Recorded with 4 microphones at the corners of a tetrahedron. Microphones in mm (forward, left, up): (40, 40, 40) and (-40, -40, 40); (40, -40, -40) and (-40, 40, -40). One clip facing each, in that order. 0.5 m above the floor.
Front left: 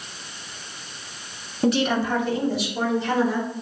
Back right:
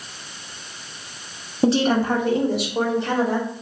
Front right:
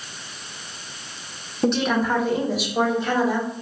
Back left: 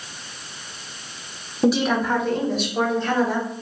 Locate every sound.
1.6 s a woman speaking: 150° right, 1.0 m; by 3.5 s 120° right, 3 m